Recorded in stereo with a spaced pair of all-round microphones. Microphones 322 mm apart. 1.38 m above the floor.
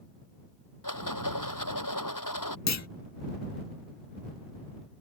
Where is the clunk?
55° left (ahead or behind).